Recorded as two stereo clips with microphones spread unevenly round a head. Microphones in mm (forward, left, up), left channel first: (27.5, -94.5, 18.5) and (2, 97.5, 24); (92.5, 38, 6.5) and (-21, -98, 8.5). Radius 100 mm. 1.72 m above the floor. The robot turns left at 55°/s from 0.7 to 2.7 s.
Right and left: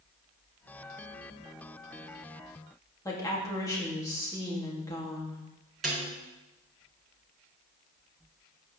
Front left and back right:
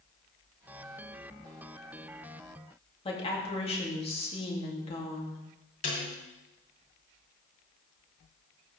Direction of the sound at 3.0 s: 10° right.